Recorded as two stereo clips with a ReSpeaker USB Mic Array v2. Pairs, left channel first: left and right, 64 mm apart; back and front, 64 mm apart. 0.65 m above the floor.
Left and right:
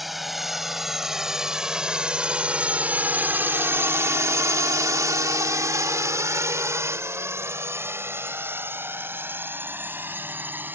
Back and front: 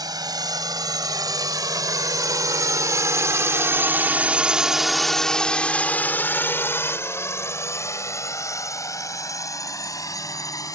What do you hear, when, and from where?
0.0 s a drone: straight ahead; by 10.8 s 150° right